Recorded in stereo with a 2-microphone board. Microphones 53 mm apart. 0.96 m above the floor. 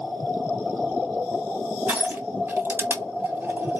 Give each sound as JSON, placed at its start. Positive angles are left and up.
{"t": 1.9, "sound": "crushing", "side_deg": -50, "distance_m": 1.2}